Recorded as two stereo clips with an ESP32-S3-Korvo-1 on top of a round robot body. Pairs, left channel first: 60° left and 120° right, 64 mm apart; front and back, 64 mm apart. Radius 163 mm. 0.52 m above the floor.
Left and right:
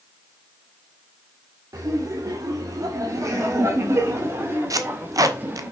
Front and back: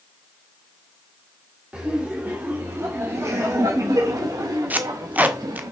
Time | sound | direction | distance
1.7 | laughter | 110° right | 2.5 m
4.7 | tape being pulled | 115° right | 1.6 m